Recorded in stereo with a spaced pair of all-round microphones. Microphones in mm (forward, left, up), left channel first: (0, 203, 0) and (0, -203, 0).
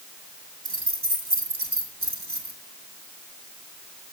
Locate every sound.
0.7 s keys jangling: 70° right (ahead or behind), 1.6 m